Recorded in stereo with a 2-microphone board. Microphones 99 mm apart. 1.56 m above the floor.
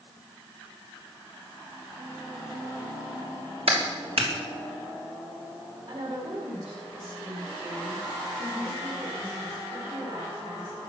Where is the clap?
75° right (ahead or behind), 3.5 m.